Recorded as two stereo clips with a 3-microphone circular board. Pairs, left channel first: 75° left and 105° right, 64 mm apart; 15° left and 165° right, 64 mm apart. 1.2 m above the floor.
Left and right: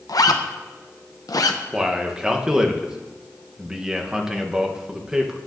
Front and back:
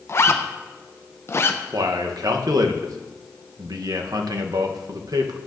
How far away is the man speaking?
About 0.8 m.